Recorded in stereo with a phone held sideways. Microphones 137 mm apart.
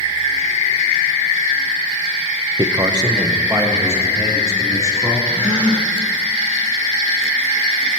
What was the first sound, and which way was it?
A man speaking, 35° right (ahead or behind).